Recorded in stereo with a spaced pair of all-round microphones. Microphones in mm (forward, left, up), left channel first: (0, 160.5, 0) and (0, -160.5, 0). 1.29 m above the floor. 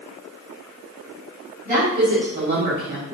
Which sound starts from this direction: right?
A woman speaking, at 1.6 s.